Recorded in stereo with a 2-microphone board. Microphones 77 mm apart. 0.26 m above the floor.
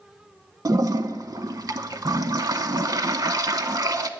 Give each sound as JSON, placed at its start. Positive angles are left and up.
{"t": 0.7, "sound": "a toilet flushing", "side_deg": -55, "distance_m": 0.5}